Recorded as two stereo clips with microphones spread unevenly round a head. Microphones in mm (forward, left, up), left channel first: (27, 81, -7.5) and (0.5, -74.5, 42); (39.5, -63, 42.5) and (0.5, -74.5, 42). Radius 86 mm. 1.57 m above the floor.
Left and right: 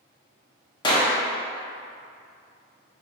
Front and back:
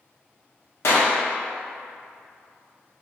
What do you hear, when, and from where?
0.8 s a clap: 10° left, 0.8 m